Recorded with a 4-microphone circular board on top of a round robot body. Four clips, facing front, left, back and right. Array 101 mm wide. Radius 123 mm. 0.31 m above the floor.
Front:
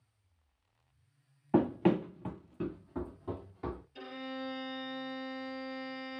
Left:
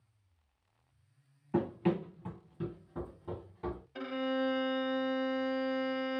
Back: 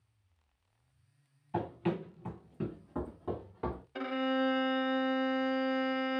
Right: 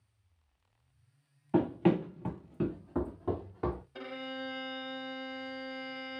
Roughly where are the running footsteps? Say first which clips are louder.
Right 4 dB, front 7 dB; ahead.